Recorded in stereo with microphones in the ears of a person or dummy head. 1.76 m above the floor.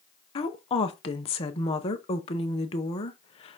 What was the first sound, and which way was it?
A woman speaking, 35° left (ahead or behind).